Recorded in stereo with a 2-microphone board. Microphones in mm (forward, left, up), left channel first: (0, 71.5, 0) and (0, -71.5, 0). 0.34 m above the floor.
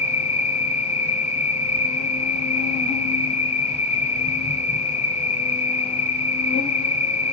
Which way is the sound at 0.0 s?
50° left (ahead or behind).